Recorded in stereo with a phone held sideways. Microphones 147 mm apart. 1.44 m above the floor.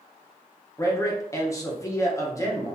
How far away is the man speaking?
About 1.0 m.